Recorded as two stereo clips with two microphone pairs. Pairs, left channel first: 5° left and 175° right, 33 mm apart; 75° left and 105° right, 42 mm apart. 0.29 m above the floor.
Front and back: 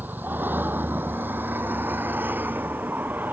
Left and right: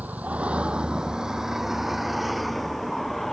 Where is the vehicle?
150° right; by 3.3 s 160° left.